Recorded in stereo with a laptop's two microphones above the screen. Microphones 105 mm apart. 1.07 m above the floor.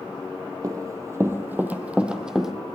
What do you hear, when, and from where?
0.6 s running footsteps: 35° right (ahead or behind), 1.2 m; by 2.5 s 5° right (ahead or behind), 1.6 m